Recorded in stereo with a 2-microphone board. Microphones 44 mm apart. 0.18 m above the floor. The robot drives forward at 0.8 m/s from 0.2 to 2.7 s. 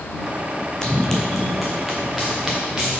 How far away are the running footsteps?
About 0.7 m.